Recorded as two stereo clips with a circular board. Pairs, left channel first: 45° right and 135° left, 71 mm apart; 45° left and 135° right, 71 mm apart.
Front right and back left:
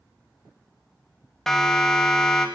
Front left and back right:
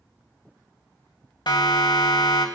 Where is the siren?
40° left, 2.5 m.